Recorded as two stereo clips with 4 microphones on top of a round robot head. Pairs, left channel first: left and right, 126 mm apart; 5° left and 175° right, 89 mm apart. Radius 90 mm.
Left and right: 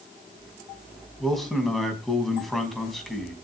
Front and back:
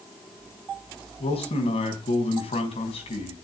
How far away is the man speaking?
About 4.5 m.